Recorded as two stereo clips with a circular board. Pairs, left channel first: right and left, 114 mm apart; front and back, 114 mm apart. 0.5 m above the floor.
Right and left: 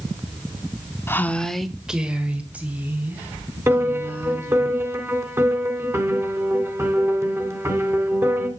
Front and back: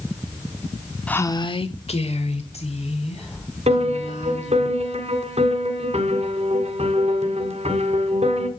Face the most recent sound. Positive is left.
turn(degrees=160)